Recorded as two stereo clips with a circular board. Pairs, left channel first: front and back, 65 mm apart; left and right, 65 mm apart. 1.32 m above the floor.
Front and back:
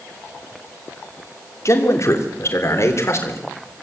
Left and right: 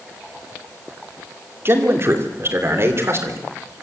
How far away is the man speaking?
About 3 m.